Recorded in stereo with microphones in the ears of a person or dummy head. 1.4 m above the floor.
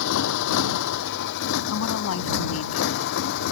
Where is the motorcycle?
75° left (ahead or behind); by 3.5 s 60° left (ahead or behind).